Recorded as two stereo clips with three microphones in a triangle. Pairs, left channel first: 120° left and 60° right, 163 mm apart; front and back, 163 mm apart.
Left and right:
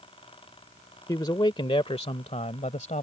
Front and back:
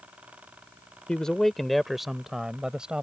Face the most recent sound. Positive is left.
turn(degrees=95)